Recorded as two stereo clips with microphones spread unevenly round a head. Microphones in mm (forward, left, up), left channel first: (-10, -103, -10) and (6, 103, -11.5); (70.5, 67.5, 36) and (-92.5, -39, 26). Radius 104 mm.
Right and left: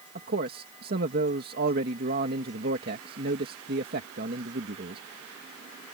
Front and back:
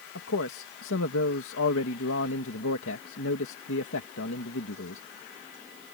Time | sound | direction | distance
0.1 | a man speaking | 40° left | ?